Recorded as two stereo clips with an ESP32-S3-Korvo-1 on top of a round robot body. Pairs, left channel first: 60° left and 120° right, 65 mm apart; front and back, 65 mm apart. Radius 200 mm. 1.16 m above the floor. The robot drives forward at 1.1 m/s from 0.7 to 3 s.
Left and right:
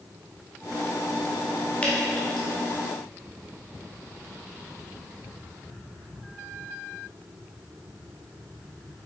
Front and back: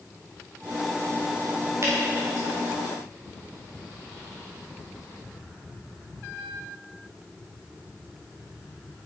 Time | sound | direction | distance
1.8 | dripping | 130° left | 1.6 m